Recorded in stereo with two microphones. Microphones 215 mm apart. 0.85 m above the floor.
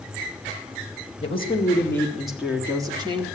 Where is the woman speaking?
30° left (ahead or behind), 1.6 m; by 3.2 s 25° right (ahead or behind), 2.0 m.